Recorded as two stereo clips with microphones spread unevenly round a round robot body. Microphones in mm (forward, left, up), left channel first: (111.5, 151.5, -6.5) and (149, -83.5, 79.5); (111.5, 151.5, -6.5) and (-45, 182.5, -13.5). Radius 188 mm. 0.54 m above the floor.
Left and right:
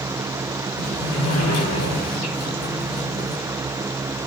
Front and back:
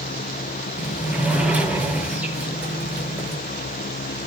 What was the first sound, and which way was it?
A sliding door, 85° left.